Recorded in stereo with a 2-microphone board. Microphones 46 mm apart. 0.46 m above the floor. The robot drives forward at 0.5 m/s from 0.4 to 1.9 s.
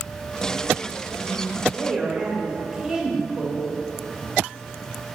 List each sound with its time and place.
1.7 s a woman speaking: 20° right (ahead or behind), 1.7 m